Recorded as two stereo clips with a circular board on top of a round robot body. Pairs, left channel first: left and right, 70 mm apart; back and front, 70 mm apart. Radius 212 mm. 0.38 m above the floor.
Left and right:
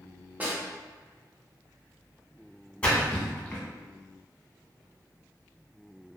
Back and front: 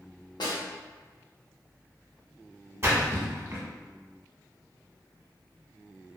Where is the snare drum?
155° right, 0.6 m.